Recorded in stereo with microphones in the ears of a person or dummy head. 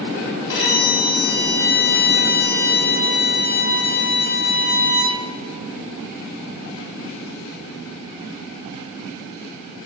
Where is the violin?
70° left (ahead or behind), 3.5 m.